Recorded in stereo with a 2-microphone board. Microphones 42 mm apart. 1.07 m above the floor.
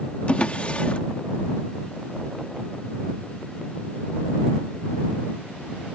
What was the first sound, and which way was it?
A drawer, 30° left (ahead or behind).